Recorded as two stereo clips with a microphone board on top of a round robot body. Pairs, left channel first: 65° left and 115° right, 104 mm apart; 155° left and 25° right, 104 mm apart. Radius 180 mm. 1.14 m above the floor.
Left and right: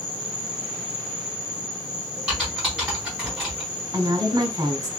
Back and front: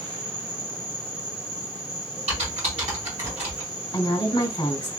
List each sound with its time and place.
0.0 s an insect: 55° left, 1.4 m
2.3 s typing on a keyboard: 30° right, 1.2 m
3.9 s a woman speaking: 160° right, 1.2 m